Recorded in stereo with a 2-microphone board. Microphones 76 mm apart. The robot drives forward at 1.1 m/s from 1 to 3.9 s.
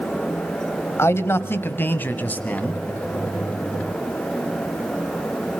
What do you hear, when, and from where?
1.0 s a man speaking: 35° left (ahead or behind), 1.8 m; by 2.8 s 20° left (ahead or behind), 3 m